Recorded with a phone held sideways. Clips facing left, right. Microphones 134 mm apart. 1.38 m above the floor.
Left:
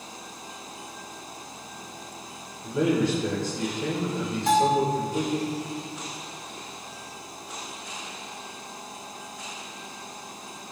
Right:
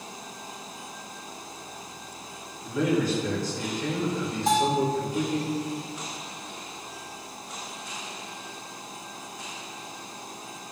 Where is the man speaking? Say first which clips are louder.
Left 1 dB; 30° left (ahead or behind), 1.9 m.